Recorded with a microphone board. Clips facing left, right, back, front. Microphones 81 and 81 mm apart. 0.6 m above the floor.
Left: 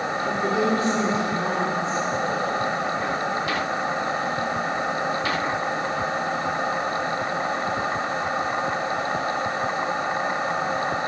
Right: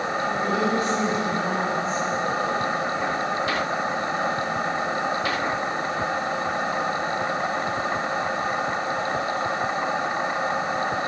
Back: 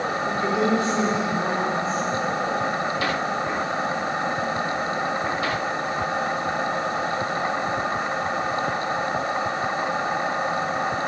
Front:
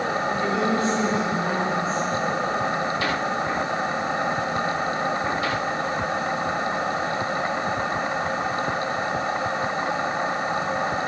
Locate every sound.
0.2 s a woman speaking: 120° left, 1.6 m